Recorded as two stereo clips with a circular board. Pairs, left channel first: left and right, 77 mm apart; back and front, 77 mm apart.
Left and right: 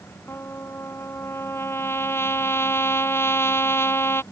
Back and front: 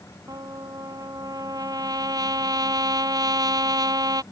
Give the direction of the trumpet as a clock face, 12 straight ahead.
11 o'clock.